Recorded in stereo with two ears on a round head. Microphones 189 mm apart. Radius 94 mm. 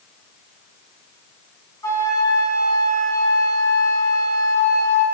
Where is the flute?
15° left (ahead or behind), 1.8 m.